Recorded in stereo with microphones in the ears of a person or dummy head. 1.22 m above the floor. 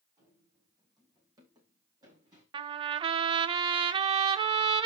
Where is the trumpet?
35° right (ahead or behind), 0.5 m.